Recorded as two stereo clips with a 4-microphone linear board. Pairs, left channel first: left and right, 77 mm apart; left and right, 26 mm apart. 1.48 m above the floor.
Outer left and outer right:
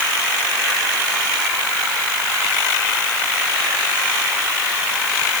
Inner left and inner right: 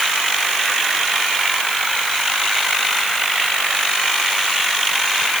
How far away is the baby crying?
No baby crying in this recording.